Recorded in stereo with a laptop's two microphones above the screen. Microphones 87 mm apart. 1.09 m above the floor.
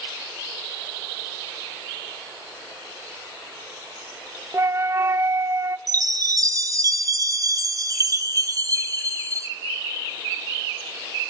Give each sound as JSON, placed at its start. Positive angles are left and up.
{"t": 4.5, "sound": "a flute", "side_deg": -35, "distance_m": 0.7}
{"t": 5.9, "sound": "a chime", "side_deg": -40, "distance_m": 1.6}